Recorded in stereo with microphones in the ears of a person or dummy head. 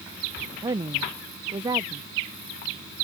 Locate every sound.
0.6 s a woman speaking: 30° right (ahead or behind)